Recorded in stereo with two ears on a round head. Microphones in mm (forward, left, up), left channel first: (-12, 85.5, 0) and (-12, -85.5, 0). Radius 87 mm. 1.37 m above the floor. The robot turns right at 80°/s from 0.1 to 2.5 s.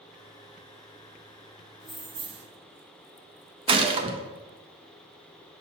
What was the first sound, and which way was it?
Keys jangling, 175° left.